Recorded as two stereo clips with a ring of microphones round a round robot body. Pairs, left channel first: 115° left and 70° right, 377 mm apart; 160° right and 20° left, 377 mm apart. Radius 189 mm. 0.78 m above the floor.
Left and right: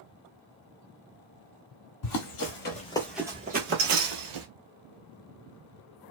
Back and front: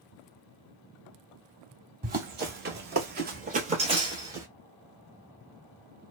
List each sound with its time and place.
2.0 s running footsteps: 85° left, 1.1 m; by 4.5 s 60° right, 1.2 m